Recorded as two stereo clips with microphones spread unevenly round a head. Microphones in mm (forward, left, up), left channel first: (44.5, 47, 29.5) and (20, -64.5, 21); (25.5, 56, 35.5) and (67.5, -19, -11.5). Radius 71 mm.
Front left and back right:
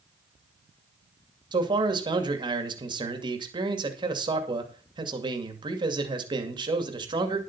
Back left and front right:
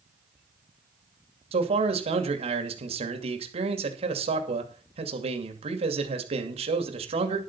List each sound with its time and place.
1.5 s a man speaking: 50° right, 2.5 m